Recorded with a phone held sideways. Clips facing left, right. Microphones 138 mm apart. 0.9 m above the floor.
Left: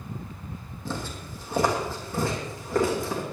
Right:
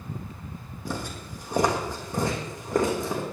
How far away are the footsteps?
About 2.5 m.